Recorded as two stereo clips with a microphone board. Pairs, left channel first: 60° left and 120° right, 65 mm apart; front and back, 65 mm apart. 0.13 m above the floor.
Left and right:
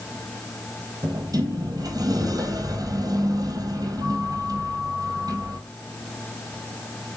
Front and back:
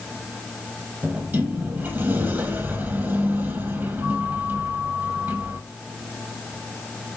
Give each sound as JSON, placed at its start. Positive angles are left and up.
{"t": 1.0, "sound": "a sliding door", "azimuth_deg": -120, "distance_m": 2.0}